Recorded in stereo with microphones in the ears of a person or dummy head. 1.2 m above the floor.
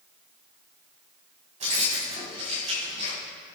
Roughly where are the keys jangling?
Right.